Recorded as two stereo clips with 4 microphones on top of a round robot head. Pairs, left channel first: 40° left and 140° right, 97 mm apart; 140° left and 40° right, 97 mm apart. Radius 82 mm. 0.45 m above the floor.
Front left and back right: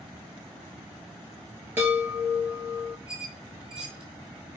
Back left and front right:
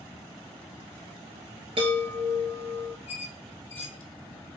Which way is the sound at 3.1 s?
135° left.